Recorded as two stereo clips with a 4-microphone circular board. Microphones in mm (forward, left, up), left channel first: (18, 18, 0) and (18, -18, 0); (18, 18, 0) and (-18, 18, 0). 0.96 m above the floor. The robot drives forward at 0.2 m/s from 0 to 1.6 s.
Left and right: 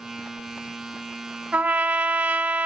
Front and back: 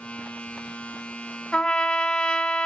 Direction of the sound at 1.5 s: 65° right.